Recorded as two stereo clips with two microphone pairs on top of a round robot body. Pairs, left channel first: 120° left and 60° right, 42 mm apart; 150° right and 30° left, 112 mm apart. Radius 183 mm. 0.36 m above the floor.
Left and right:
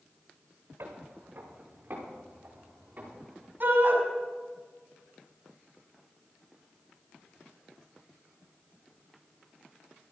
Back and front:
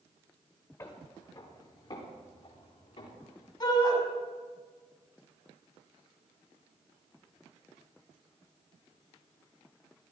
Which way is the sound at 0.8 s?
85° right.